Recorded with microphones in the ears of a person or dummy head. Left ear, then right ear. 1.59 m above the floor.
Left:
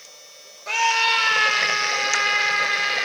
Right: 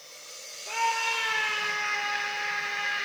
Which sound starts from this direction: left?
A scream, at 0.7 s.